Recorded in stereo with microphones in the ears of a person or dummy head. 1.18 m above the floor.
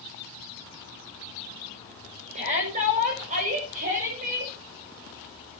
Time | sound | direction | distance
2.4 | a shout | 45° right (ahead or behind) | 5.5 m